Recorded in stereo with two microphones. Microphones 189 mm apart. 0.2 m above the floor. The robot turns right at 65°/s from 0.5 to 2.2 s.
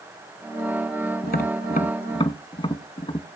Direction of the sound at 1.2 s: 55° left (ahead or behind).